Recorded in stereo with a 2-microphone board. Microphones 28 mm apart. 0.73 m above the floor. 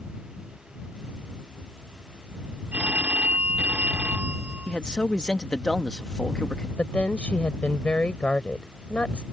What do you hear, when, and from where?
2.7 s a phone ringing: 70° right (ahead or behind)
4.7 s a man speaking: 30° left (ahead or behind)
6.8 s a woman speaking: 50° left (ahead or behind)